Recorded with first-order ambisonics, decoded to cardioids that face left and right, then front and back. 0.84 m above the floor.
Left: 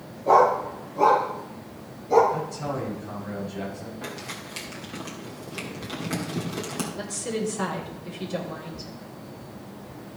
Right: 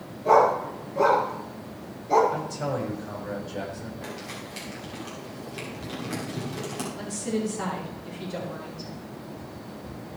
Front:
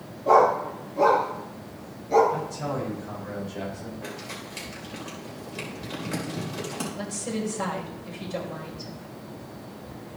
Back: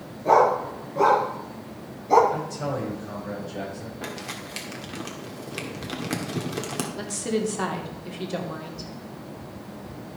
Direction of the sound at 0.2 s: 145° right.